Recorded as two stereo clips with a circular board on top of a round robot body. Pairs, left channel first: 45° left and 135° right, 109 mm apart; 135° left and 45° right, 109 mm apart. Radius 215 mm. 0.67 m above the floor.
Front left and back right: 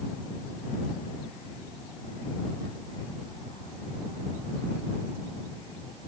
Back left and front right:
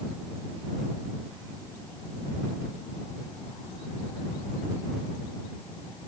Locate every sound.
Only background noise.